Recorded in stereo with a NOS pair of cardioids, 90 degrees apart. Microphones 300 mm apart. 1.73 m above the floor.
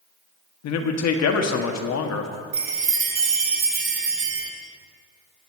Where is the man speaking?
60° left, 1.4 m.